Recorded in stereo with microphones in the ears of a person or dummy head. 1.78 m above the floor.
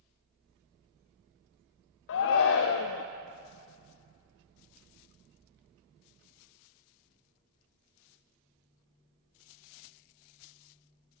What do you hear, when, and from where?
2.1 s a shout: 65° left (ahead or behind), 0.5 m